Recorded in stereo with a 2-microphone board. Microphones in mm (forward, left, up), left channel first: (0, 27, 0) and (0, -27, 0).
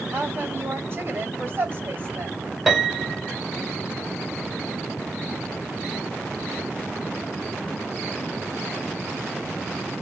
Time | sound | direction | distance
0.1 | a woman speaking | 35° right (ahead or behind) | 2 m
2.7 | a piano | centre (ahead or behind) | 1.6 m